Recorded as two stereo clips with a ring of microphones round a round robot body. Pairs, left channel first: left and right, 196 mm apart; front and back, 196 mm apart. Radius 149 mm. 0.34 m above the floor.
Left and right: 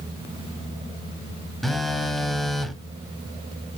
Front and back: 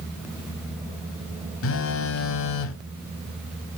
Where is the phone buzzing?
Straight ahead, 0.7 m.